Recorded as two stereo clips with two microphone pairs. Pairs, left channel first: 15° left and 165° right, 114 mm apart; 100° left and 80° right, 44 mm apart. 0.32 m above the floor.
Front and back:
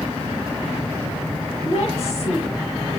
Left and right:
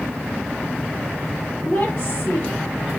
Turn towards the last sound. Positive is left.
turn(degrees=30)